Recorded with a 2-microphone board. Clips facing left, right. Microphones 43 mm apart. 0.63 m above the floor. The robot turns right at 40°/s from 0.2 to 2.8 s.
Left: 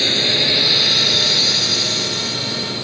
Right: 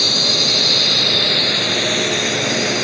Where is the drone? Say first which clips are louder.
Left 1 dB; 30° left (ahead or behind); by 2.9 s 70° right (ahead or behind).